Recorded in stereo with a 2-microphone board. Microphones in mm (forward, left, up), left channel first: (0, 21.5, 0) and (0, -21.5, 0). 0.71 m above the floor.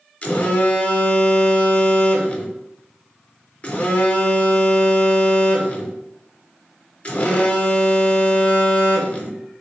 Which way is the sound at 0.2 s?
35° left (ahead or behind).